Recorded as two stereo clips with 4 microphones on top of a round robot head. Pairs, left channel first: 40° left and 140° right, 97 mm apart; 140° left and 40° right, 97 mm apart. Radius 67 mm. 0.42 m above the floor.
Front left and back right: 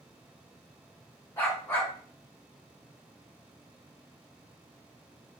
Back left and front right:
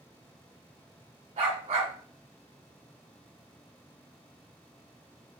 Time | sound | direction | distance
1.4 | a dog barking | 30° right | 1.8 m